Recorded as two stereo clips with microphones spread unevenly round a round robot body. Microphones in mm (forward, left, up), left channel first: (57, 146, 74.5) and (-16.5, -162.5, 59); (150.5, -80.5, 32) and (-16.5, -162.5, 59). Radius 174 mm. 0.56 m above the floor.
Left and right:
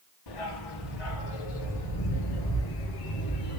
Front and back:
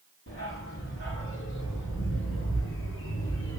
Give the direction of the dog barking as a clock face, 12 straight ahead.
9 o'clock.